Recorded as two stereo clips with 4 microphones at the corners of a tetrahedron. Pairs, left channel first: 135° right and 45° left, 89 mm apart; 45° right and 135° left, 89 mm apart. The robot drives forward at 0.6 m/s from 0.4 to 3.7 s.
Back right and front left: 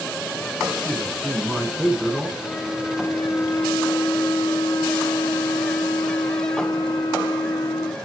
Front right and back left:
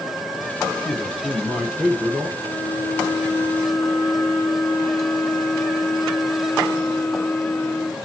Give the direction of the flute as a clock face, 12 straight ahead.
2 o'clock.